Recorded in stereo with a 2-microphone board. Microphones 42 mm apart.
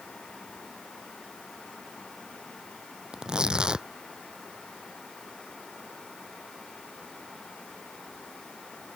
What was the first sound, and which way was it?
Tearing paper, 25° right (ahead or behind).